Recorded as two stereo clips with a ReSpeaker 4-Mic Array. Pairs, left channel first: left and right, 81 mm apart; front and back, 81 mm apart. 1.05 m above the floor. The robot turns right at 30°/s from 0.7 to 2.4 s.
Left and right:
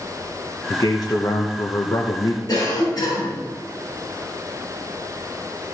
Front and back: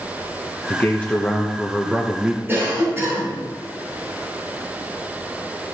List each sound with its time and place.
0.7 s a man speaking: 60° left, 1.0 m; by 2.4 s 110° left, 1.0 m
2.5 s a cough: 120° left, 5.5 m